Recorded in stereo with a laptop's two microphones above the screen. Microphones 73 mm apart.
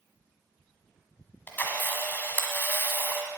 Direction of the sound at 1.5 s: 25° left (ahead or behind).